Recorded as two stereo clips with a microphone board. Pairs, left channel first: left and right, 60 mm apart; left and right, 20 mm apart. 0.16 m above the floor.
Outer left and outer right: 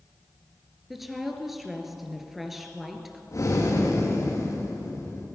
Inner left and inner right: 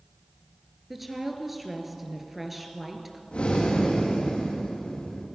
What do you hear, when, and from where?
0.9 s a woman speaking: 5° right (ahead or behind), 2.5 m
3.3 s breathing: 55° left (ahead or behind), 8 m